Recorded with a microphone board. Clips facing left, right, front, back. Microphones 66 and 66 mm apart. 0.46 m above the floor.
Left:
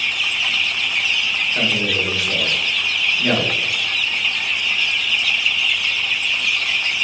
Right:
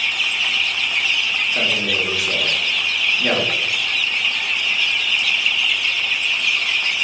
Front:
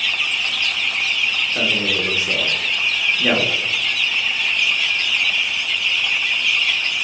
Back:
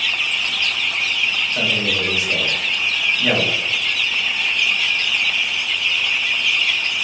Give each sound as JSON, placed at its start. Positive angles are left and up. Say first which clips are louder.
{"t": 1.5, "sound": "a man speaking", "louder": "left 2 dB, even", "azimuth_deg": -25, "distance_m": 1.0}